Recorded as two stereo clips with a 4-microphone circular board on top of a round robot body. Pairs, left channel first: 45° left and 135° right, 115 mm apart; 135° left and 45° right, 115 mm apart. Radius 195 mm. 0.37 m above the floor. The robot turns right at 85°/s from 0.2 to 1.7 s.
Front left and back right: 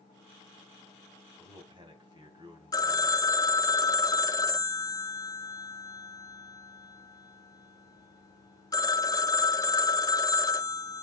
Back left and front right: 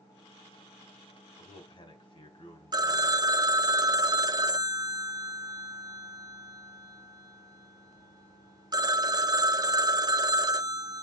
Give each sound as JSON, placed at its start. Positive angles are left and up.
{"t": 1.4, "sound": "a man speaking", "azimuth_deg": 150, "distance_m": 3.5}
{"t": 2.7, "sound": "a phone ringing", "azimuth_deg": -5, "distance_m": 0.7}